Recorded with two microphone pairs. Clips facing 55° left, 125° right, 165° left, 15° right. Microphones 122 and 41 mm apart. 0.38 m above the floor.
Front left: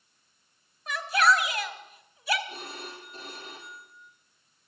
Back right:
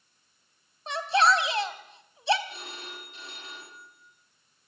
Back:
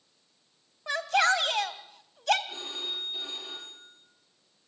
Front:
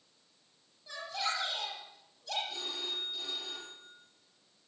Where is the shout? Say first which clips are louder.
Back right 1 dB, back 12 dB; 175° left, 2.5 m.